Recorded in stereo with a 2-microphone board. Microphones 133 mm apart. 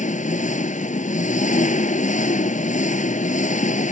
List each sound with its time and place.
0.0 s an engine running: 70° left (ahead or behind)